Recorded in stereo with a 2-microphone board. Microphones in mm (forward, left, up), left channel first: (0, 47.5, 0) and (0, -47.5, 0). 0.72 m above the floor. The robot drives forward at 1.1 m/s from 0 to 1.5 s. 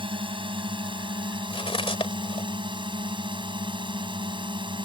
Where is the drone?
65° right (ahead or behind); by 4.9 s 60° right (ahead or behind).